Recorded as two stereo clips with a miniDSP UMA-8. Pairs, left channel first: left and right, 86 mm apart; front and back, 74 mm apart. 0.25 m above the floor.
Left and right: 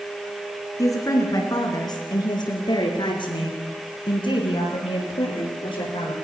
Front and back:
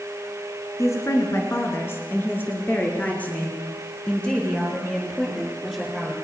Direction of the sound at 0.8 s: 45° left.